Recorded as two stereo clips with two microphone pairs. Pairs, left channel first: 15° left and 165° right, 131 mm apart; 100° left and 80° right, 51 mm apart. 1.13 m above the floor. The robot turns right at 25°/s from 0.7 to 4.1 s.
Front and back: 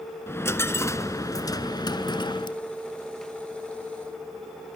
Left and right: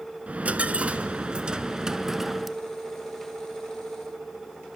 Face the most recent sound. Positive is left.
turn(degrees=45)